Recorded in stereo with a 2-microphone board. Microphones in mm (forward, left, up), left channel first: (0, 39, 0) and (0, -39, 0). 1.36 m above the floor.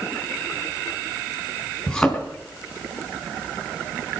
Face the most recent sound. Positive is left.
turn(degrees=10)  # may be behind; listen again after turning